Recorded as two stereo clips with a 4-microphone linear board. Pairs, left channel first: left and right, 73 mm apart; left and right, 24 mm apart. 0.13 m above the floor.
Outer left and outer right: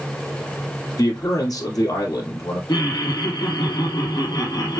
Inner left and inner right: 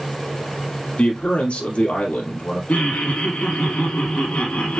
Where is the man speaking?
55° left (ahead or behind), 2.5 m.